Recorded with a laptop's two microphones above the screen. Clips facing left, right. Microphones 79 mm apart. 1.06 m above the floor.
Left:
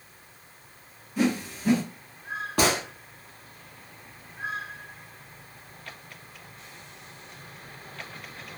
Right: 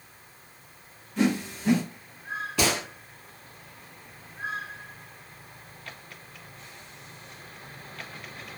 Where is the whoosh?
5° left (ahead or behind), 0.9 m.